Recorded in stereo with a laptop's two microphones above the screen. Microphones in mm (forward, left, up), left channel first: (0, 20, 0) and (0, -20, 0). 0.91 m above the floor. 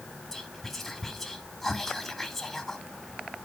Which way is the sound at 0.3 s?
5° left (ahead or behind).